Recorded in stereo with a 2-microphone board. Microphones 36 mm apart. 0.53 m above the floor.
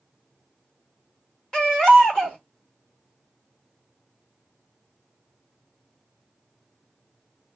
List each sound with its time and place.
1.5 s a baby crying: 25° left (ahead or behind), 1.3 m